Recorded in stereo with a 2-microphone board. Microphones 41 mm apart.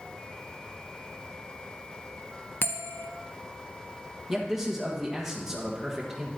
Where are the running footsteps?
No running footsteps in this recording.